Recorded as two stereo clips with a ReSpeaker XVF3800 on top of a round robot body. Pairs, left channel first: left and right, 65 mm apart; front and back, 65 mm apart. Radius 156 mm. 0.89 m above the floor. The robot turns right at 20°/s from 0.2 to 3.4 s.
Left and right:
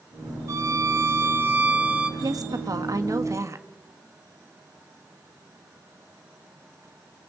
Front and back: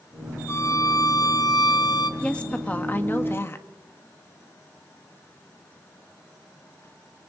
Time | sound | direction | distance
0.5 | a violin | 50° right | 1.3 m
2.2 | a woman speaking | 75° right | 1.6 m